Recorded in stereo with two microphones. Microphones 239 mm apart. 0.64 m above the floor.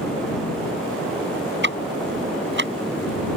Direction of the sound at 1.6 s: 50° right (ahead or behind).